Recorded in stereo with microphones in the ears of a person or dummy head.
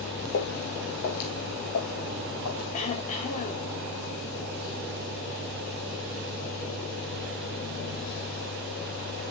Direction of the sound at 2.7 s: 40° left (ahead or behind).